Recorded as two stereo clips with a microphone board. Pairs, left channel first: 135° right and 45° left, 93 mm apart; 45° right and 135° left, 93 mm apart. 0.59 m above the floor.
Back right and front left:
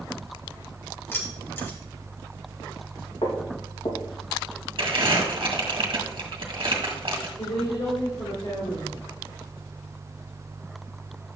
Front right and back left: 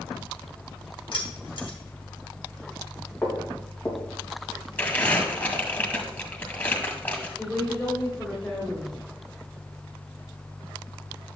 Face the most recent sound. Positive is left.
turn(degrees=-125)